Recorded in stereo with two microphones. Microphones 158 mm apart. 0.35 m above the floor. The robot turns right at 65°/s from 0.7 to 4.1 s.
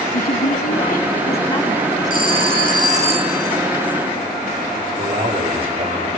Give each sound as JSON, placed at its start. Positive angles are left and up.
{"t": 0.1, "sound": "a woman speaking", "azimuth_deg": 90, "distance_m": 3.5}
{"t": 2.1, "sound": "a phone ringing", "azimuth_deg": -110, "distance_m": 2.0}
{"t": 5.0, "sound": "a man speaking", "side_deg": -35, "distance_m": 9.0}